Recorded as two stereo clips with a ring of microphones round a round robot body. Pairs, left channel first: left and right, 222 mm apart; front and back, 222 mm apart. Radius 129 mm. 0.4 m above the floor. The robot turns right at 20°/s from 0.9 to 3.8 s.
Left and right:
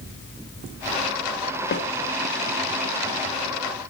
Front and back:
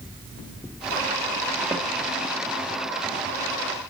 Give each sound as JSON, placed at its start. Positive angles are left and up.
{"t": 1.7, "sound": "a snare drum", "azimuth_deg": 95, "distance_m": 1.8}